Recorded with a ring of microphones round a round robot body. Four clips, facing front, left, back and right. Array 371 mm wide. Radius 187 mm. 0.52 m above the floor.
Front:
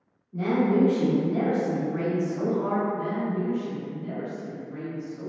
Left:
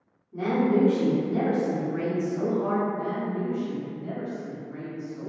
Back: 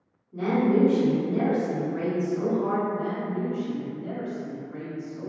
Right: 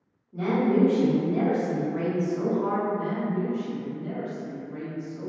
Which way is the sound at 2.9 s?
125° left.